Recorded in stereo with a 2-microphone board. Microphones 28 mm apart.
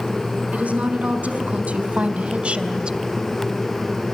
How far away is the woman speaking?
About 5 m.